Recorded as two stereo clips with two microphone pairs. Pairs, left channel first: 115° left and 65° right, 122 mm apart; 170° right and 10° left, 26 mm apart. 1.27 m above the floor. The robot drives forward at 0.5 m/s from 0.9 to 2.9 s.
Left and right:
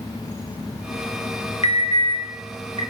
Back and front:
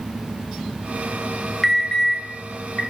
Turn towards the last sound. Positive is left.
turn(degrees=145)